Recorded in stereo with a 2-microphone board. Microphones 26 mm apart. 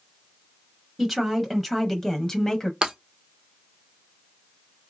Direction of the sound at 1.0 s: 5° right (ahead or behind).